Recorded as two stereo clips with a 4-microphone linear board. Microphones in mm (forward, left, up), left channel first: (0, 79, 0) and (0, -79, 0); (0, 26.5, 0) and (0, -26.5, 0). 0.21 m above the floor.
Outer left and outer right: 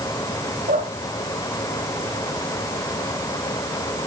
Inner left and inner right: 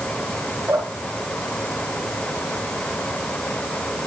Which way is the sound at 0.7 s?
80° right.